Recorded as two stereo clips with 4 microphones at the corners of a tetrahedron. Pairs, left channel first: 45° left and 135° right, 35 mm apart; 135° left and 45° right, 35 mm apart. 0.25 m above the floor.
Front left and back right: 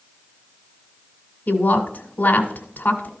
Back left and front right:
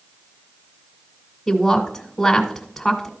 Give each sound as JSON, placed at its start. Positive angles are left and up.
{"t": 1.5, "sound": "a woman speaking", "azimuth_deg": 45, "distance_m": 1.8}